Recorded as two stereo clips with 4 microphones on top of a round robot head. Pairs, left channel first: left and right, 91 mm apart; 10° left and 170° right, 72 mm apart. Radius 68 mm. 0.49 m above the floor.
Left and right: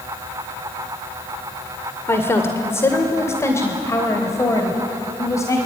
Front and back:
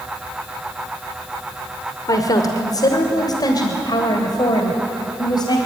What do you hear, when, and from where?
2.1 s a woman speaking: 30° left, 2.0 m; by 5.6 s 35° left, 3.5 m